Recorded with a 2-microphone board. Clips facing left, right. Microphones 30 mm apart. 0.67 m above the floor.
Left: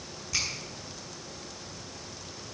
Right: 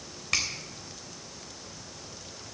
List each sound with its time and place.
0.3 s a finger snap: 70° right (ahead or behind), 3 m